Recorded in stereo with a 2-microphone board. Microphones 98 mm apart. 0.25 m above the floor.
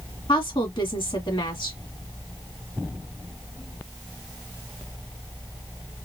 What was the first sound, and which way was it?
A woman speaking, 55° left (ahead or behind).